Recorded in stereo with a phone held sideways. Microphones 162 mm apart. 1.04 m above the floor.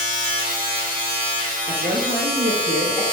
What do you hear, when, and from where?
0.0 s a machine running: 55° right (ahead or behind), 1.2 m
1.7 s a woman speaking: 65° right (ahead or behind), 0.5 m